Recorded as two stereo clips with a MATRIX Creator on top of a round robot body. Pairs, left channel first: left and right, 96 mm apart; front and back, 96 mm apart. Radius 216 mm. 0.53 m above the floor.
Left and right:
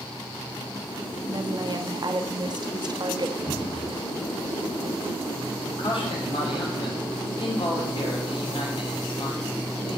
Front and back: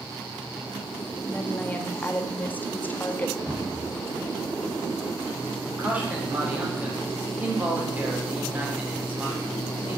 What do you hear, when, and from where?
1.3 s a woman speaking: 70° right, 1.3 m
3.5 s a cupboard door: 80° left, 5 m
5.7 s a man speaking: 105° left, 3 m